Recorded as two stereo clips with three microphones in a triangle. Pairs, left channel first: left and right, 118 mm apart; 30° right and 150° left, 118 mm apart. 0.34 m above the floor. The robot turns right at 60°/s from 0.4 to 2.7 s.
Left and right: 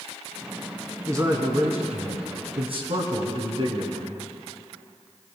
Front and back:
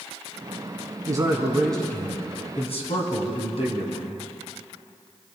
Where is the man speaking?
155° right, 2.5 m; by 4.2 s 55° right, 2.5 m.